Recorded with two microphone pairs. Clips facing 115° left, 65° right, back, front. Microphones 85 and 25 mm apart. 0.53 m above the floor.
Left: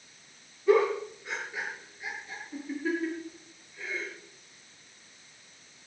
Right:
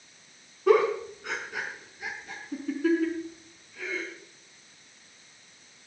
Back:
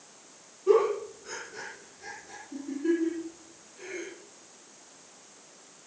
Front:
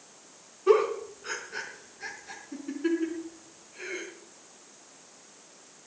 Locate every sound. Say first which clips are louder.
0.7 s a giggle: right 2 dB, even; 50° right, 4 m